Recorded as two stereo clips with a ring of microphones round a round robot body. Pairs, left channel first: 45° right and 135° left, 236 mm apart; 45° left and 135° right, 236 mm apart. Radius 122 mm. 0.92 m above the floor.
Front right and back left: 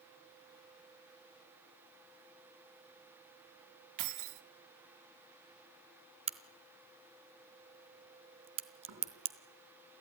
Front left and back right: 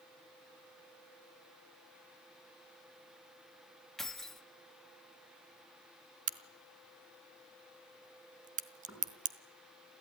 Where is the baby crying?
No baby crying in this recording.